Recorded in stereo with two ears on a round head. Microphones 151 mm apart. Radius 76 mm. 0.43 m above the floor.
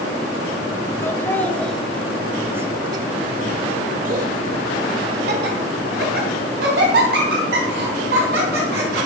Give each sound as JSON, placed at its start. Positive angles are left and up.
{"t": 1.0, "sound": "laughter", "side_deg": 15, "distance_m": 1.9}